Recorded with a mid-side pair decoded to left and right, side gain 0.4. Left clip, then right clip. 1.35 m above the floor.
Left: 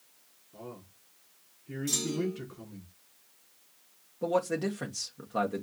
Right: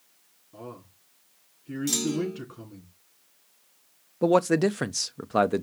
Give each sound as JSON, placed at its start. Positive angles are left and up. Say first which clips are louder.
{"t": 0.5, "sound": "a man speaking", "louder": "right 3 dB", "azimuth_deg": -55, "distance_m": 3.5}
{"t": 1.9, "sound": "a clunk", "louder": "right 3 dB", "azimuth_deg": -60, "distance_m": 1.2}
{"t": 4.2, "sound": "a man speaking", "louder": "right 8 dB", "azimuth_deg": -70, "distance_m": 0.5}